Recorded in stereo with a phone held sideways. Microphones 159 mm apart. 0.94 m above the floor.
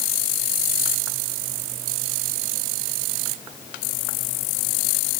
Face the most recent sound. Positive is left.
No sound to turn to.